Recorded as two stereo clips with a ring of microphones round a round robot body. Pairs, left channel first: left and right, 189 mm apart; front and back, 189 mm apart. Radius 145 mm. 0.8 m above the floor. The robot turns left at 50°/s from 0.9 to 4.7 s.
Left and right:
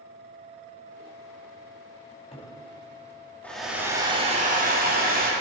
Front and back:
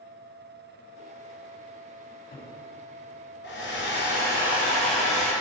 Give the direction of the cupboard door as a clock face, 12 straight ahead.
11 o'clock.